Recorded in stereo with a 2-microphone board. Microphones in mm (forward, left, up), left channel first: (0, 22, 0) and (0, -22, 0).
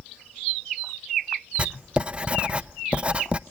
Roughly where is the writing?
Right.